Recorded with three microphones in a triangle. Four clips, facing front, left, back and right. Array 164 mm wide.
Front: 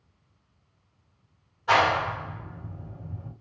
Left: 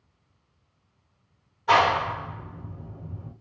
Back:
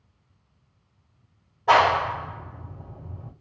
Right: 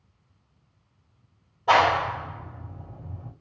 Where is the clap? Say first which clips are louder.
Right 1 dB, back 4 dB; 135° right, 1.7 m.